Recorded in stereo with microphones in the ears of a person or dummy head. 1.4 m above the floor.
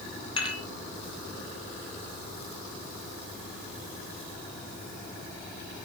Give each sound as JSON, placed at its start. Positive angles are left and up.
{"t": 0.4, "sound": "dishes clattering", "side_deg": 30, "distance_m": 2.5}